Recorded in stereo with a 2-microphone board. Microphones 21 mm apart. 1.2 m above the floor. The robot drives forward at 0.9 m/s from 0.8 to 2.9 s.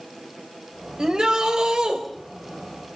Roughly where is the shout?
Right.